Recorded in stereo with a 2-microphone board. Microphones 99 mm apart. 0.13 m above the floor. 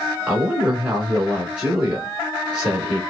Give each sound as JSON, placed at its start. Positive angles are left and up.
{"t": 0.3, "sound": "a woman speaking", "side_deg": -10, "distance_m": 1.2}